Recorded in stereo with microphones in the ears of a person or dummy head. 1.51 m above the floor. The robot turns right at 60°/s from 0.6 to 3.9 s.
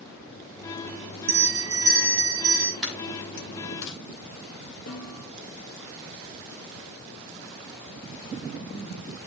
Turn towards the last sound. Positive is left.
turn(degrees=70)  # may be behind; listen again after turning